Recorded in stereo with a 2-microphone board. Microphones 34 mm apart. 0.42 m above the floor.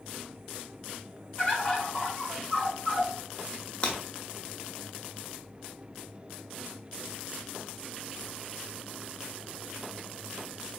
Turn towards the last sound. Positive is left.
turn(degrees=30)  # may be behind; listen again after turning